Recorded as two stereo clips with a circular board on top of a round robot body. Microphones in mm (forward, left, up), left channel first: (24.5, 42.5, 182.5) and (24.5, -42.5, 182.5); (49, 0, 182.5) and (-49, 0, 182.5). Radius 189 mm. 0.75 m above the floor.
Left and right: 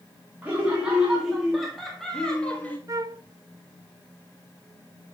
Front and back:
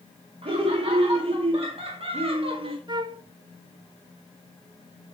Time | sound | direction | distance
0.4 | laughter | 165° right | 2.5 m
2.9 | a flute | 140° right | 0.9 m